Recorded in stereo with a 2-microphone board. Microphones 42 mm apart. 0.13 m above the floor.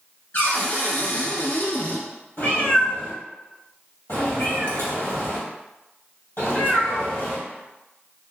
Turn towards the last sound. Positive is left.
turn(degrees=65)  # may be behind; listen again after turning